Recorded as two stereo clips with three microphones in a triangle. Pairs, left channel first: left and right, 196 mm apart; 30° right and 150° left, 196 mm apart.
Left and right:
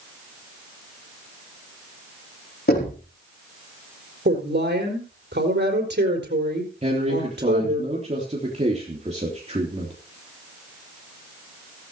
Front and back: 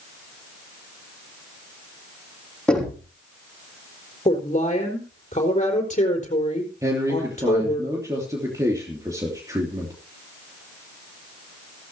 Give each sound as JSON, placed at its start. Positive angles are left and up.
{"t": 2.7, "sound": "knocking", "azimuth_deg": 55, "distance_m": 5.0}
{"t": 4.2, "sound": "a woman speaking", "azimuth_deg": -75, "distance_m": 4.0}
{"t": 6.8, "sound": "a man speaking", "azimuth_deg": -140, "distance_m": 3.0}